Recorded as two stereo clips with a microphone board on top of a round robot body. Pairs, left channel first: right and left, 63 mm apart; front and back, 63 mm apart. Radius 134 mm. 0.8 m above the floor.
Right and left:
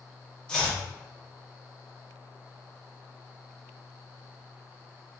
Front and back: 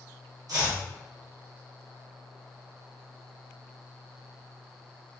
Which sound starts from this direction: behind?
Chopping, at 0.5 s.